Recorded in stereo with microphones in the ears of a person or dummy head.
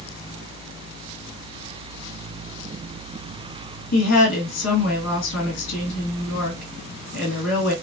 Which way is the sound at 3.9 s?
80° left.